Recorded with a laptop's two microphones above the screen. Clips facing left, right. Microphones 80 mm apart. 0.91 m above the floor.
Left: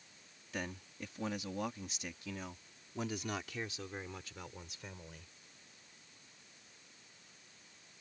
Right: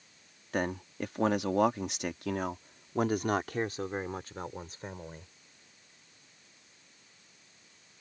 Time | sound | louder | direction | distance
0.5 | a man speaking | right 11 dB | 55° right (ahead or behind) | ?